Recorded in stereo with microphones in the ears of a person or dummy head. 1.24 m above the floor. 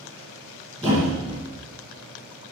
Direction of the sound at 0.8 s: 15° right (ahead or behind).